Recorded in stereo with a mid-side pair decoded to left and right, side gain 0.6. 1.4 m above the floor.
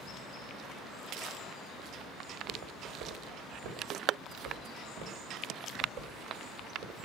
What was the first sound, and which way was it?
Footsteps, 60° right.